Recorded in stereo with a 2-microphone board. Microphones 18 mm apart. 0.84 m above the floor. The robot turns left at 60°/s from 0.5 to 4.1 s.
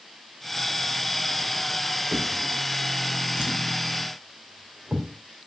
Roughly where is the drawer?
Centre.